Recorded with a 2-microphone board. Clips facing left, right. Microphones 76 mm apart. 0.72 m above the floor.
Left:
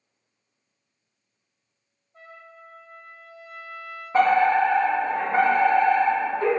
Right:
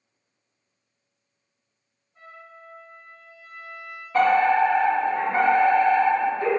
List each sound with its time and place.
2.1 s a trumpet: 70° left (ahead or behind), 1.7 m
4.1 s a fire alarm: 30° left (ahead or behind), 1.8 m